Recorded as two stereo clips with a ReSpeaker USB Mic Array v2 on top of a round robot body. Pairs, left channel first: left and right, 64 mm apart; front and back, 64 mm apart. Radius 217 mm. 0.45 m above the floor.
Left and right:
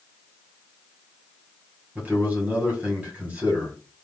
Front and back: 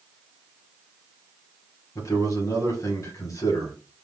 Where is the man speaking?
25° right, 2 m.